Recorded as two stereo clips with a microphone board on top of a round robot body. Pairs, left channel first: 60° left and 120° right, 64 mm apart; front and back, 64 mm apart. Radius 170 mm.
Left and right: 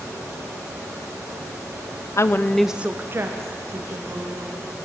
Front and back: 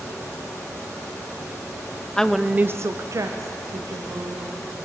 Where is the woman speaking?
75° left, 0.5 m; by 4.6 s 150° right, 1.7 m.